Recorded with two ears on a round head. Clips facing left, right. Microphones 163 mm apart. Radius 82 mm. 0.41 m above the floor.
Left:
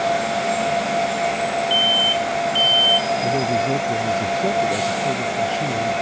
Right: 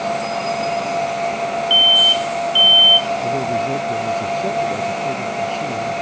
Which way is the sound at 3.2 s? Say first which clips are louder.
Even; 5° left (ahead or behind).